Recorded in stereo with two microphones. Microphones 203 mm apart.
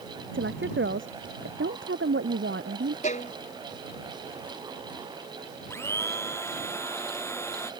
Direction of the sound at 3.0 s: 40° left (ahead or behind).